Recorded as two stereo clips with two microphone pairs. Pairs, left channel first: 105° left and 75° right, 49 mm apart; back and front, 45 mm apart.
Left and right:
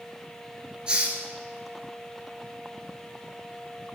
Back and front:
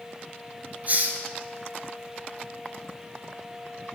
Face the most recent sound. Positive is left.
turn(degrees=-15)